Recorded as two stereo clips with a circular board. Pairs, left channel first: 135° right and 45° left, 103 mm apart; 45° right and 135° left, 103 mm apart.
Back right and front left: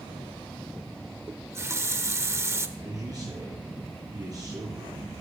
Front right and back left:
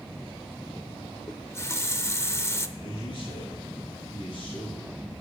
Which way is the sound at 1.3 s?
Straight ahead.